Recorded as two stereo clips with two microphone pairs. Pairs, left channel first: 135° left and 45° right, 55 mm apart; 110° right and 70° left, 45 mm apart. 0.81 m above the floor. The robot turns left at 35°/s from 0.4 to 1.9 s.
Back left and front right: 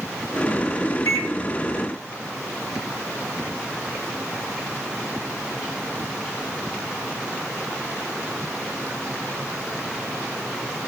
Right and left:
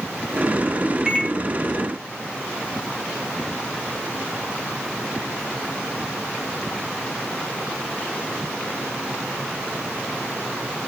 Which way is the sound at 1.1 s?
145° left.